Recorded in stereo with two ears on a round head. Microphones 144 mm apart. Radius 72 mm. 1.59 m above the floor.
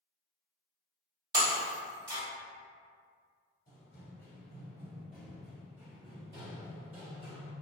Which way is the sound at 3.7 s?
20° left (ahead or behind).